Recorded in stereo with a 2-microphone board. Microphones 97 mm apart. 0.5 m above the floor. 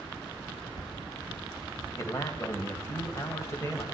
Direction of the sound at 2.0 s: 30° left (ahead or behind).